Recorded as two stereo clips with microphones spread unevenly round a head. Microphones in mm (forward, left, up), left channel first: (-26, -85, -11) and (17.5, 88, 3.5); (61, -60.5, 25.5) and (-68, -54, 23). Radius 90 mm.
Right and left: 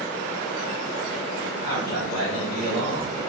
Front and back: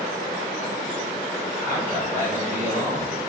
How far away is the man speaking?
About 2.0 m.